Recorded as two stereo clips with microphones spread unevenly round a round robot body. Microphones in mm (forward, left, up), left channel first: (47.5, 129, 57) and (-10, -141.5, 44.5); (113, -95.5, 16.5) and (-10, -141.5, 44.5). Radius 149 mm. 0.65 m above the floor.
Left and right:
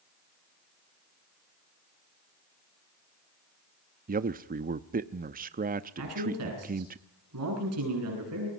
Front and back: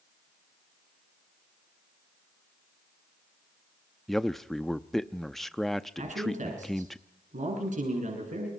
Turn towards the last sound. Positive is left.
turn(degrees=-140)